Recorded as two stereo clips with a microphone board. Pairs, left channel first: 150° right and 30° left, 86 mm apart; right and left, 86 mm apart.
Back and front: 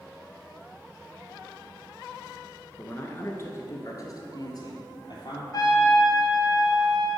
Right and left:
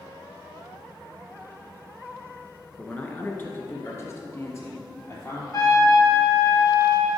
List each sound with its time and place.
2.8 s a man speaking: 135° right, 1.3 m; by 5.4 s 130° right, 2.5 m
5.5 s a trumpet: 120° right, 2 m